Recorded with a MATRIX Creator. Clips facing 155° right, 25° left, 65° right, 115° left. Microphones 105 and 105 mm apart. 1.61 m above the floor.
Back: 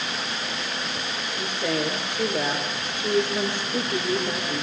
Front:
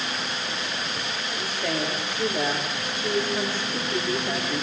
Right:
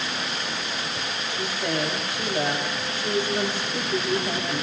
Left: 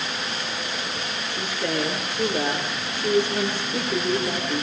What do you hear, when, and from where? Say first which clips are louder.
1.3 s a woman speaking: back 2 dB, left 1 dB; 135° left, 6.5 m